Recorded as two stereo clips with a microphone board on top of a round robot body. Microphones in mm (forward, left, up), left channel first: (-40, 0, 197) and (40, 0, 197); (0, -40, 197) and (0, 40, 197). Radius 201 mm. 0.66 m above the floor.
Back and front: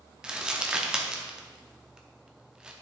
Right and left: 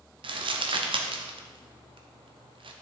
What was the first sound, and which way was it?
Crumpling, 80° left.